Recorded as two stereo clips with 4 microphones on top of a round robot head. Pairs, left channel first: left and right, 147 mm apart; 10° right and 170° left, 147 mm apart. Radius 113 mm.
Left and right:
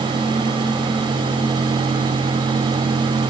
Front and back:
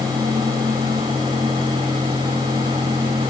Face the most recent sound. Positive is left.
No sound to turn to.